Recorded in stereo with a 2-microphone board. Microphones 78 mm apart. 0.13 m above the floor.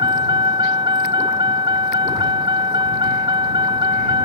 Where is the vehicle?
85° right.